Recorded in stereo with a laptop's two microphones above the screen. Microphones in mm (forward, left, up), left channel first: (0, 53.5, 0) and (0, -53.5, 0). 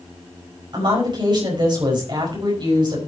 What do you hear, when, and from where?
0.7 s a woman speaking: 45° right (ahead or behind), 4.5 m